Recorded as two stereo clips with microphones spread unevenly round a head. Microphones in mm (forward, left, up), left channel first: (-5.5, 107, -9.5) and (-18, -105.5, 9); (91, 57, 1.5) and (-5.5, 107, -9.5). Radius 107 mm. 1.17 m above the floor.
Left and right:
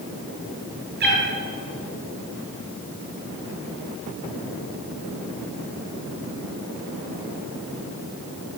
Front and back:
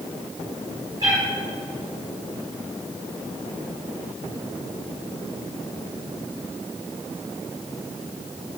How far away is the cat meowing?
About 4 m.